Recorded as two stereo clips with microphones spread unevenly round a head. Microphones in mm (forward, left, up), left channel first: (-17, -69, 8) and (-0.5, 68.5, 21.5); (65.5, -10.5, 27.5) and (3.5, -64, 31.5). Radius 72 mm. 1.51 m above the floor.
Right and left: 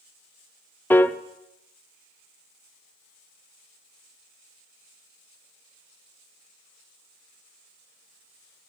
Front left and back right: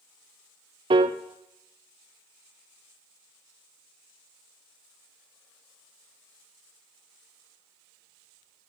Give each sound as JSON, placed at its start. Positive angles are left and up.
{"t": 0.9, "sound": "a piano", "azimuth_deg": -170, "distance_m": 0.6}